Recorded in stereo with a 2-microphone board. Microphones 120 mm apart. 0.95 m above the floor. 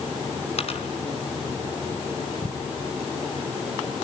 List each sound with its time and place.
0.6 s a dropped coin: 55° left (ahead or behind), 3.5 m